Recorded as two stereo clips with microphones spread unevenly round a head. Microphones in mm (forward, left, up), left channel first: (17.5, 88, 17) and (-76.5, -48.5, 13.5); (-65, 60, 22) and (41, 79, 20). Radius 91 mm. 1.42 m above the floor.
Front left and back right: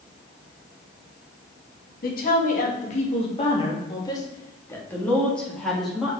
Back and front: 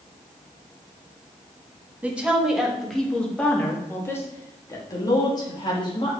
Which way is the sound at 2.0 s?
90° left.